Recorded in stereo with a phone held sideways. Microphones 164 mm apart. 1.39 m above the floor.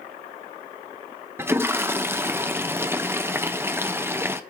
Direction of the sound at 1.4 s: 15° right (ahead or behind).